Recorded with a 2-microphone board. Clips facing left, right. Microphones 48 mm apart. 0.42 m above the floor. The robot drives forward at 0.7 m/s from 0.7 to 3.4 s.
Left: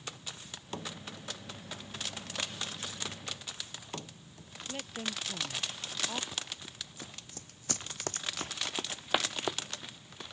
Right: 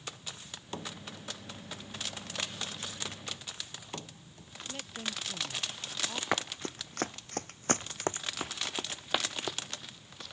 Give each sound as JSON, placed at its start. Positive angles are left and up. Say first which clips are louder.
{"t": 4.7, "sound": "a woman speaking", "louder": "left 1 dB", "side_deg": 15}
{"t": 6.3, "sound": "running footsteps", "louder": "right 9 dB", "side_deg": -80}